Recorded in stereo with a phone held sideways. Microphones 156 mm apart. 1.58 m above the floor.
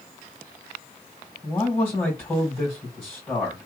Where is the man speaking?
5° left (ahead or behind), 2.5 m.